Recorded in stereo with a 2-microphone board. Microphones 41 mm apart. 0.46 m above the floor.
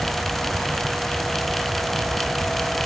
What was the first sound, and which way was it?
Only background noise.